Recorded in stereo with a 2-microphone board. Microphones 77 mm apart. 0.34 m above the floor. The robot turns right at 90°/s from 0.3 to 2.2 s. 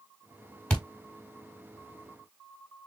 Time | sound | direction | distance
0.7 | a thud | 10° left (ahead or behind) | 1.4 m